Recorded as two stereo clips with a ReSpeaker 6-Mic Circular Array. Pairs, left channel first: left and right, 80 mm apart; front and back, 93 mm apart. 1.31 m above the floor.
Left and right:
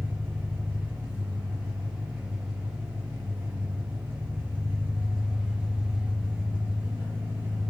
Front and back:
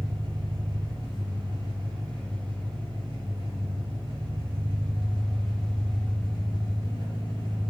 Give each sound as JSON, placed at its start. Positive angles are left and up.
{"t": 0.0, "sound": "an engine running", "azimuth_deg": -155, "distance_m": 4.0}